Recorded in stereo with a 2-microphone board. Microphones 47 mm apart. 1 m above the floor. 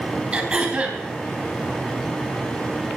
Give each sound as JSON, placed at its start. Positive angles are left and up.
{"t": 0.3, "sound": "throat clearing", "side_deg": -20, "distance_m": 3.5}